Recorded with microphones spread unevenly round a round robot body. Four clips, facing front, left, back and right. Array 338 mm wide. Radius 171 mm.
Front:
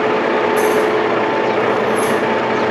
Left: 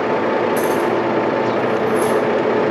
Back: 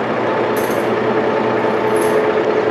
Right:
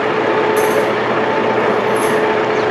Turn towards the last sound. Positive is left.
turn(degrees=175)